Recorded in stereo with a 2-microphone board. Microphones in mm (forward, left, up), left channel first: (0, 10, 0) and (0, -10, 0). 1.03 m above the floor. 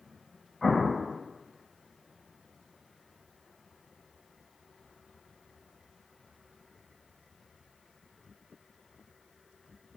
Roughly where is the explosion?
Centre.